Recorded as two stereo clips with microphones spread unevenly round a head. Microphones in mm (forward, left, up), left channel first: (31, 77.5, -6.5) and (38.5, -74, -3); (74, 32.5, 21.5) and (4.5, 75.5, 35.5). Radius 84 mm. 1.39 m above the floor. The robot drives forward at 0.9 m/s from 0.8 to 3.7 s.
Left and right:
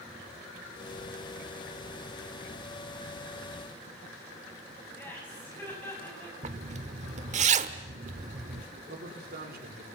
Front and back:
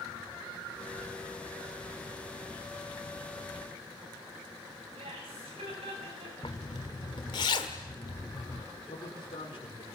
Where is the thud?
No thud in this recording.